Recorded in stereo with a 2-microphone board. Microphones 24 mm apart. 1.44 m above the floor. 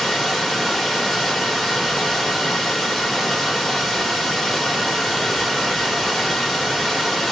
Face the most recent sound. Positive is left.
turn(degrees=0)  # may be behind; listen again after turning